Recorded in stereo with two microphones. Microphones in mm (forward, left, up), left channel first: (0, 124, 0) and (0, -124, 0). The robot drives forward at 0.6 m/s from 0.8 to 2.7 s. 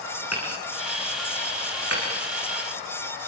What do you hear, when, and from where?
0.3 s hammering: 80° left, 7 m; by 2.1 s 75° left (ahead or behind), 7.5 m